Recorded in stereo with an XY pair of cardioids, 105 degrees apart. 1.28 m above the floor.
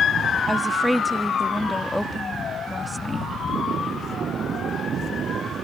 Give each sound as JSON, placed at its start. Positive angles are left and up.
{"t": 0.5, "sound": "a woman speaking", "azimuth_deg": 5}